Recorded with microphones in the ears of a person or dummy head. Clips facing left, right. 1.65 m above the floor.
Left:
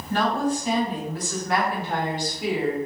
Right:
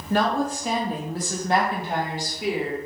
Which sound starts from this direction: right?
A woman speaking, at 0.1 s.